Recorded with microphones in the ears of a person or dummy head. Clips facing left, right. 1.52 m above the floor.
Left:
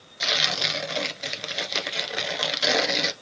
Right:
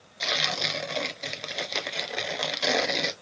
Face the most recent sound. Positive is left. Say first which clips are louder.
# left 1 dB
turn(degrees=5)  # may be behind; listen again after turning